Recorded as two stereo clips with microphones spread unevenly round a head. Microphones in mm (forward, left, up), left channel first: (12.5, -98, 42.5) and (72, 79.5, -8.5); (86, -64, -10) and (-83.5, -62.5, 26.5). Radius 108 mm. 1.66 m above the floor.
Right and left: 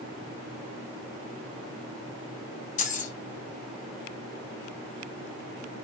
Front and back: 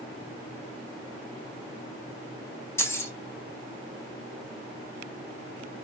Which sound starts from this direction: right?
Keys jangling, at 2.8 s.